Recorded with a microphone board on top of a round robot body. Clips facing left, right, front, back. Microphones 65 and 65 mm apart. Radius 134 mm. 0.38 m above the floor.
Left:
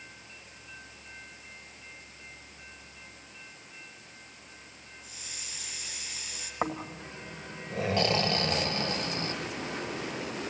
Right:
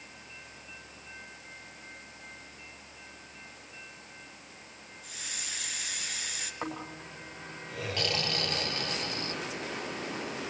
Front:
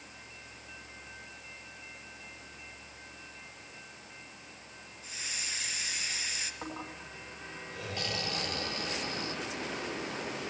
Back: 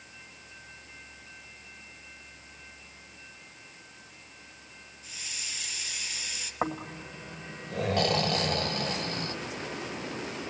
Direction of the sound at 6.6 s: 150° left.